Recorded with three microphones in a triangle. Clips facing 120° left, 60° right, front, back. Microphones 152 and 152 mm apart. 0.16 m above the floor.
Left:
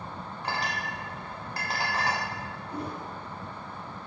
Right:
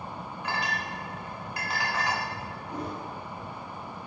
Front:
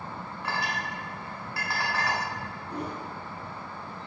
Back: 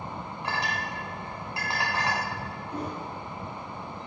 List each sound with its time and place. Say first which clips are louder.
0.4 s a clink: even, even; 130° left, 0.8 m
2.7 s a whoosh: right 1 dB, even; 40° right, 1.3 m